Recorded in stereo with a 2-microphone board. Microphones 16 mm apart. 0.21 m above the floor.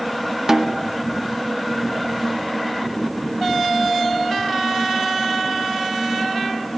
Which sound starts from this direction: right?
A snare drum, at 0.5 s.